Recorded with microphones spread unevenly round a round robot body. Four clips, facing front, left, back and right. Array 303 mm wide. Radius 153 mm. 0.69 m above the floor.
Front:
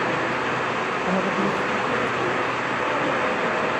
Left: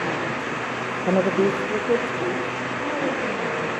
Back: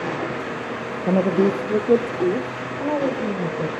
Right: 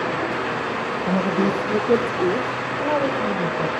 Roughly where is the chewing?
No chewing in this recording.